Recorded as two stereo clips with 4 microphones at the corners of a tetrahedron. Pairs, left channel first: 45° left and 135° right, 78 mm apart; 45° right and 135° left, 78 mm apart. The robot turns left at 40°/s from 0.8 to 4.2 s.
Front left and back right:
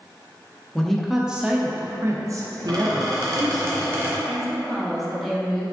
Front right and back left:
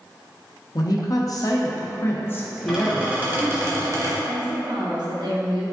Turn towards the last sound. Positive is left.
turn(degrees=135)